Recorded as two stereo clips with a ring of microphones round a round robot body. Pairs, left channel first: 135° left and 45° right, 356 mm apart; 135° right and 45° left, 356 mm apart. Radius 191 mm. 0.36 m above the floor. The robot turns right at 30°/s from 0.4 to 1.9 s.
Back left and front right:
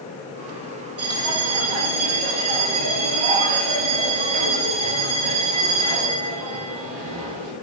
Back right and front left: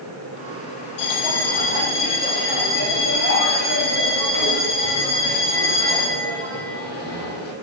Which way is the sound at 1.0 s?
100° right.